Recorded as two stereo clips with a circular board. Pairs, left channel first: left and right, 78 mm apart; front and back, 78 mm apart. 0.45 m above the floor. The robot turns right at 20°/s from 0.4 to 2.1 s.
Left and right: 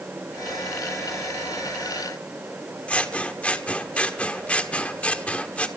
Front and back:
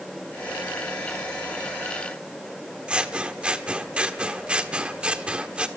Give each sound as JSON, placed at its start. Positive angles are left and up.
{"t": 2.9, "sound": "scissors", "azimuth_deg": 130, "distance_m": 1.5}